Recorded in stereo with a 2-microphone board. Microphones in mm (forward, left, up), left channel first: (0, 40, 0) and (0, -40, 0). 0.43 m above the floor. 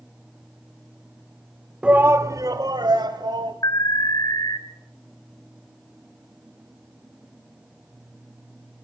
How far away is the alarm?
About 1.3 m.